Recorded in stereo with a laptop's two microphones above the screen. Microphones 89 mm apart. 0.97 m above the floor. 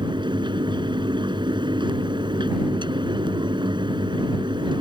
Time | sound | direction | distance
0.0 | a fan | 65° right (ahead or behind) | ?